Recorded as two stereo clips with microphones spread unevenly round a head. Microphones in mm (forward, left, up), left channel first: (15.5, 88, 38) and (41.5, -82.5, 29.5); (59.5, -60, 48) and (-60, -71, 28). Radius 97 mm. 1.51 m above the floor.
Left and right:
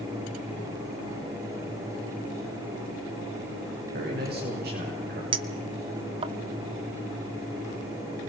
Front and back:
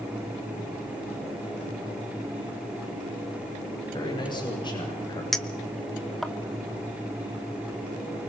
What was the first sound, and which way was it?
A man speaking, 45° right.